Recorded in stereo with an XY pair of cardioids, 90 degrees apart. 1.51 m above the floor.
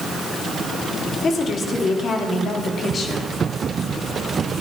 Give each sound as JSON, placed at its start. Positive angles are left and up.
{"t": 1.2, "sound": "a woman speaking", "azimuth_deg": 50, "distance_m": 3.5}